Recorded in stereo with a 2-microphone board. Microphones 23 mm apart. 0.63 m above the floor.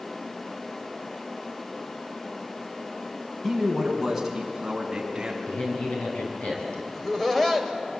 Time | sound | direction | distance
3.4 | a man speaking | 5° left (ahead or behind) | 5 m
5.5 | a man speaking | 80° left | 5.5 m
6.9 | laughter | 15° left (ahead or behind) | 3 m